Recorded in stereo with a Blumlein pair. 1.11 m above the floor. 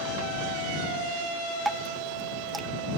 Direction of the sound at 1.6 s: 5° right.